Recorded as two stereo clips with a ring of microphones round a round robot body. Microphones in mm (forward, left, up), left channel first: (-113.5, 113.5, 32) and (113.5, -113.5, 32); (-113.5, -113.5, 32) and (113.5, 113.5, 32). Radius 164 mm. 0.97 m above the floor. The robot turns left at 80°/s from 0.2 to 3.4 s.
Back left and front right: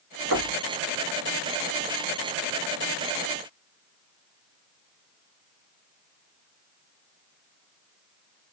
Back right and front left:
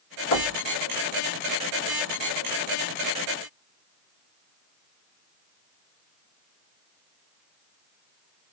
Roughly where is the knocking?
Right.